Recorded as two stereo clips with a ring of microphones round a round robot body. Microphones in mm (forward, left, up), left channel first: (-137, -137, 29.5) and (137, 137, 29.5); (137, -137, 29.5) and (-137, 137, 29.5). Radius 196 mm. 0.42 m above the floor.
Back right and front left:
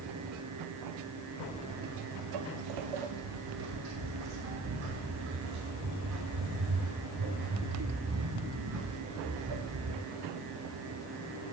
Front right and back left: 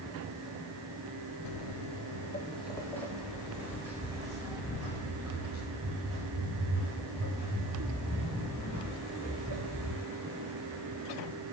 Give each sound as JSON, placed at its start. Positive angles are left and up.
{"t": 1.4, "sound": "footsteps", "azimuth_deg": -45, "distance_m": 0.6}